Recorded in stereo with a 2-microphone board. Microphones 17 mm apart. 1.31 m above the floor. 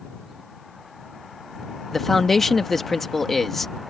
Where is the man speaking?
15° left (ahead or behind).